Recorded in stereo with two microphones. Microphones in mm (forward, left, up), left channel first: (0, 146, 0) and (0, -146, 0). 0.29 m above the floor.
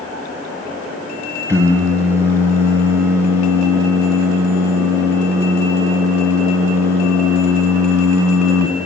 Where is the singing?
10° right (ahead or behind), 2.5 m.